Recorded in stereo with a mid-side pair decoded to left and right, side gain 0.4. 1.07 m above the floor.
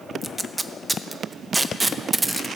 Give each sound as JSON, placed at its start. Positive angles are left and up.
{"t": 0.2, "sound": "tape being pulled", "azimuth_deg": -20, "distance_m": 0.6}